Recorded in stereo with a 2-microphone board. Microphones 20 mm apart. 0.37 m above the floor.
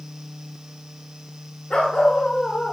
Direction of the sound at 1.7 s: 75° left (ahead or behind).